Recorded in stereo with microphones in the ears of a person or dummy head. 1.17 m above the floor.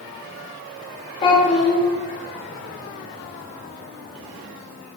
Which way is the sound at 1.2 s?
30° left (ahead or behind).